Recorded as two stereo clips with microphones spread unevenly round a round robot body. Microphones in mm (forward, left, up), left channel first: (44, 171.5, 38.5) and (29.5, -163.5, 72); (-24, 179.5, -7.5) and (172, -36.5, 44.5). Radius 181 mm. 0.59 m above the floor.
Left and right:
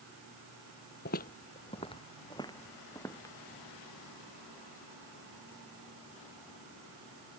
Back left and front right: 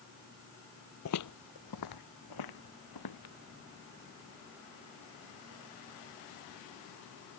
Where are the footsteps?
145° left; by 3.3 s 170° left.